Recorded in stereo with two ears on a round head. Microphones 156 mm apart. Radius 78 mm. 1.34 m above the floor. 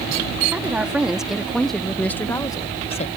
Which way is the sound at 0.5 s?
10° right (ahead or behind).